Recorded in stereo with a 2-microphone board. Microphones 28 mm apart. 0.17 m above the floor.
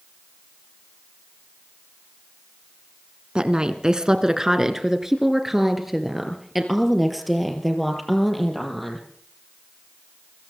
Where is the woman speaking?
35° right (ahead or behind), 1.7 m; by 9.1 s centre (ahead or behind), 5 m.